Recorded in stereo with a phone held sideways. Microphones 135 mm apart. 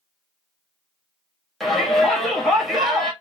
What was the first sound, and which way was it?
A shout, centre (ahead or behind).